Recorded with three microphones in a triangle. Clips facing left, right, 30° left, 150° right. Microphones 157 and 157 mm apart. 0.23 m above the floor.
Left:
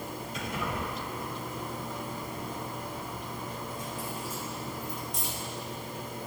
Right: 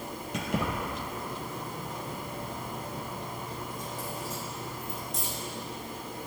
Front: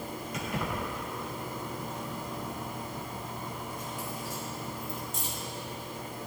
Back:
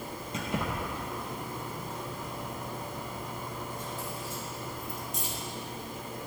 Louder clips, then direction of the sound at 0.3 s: Right 4 dB, back 1 dB; 90° right.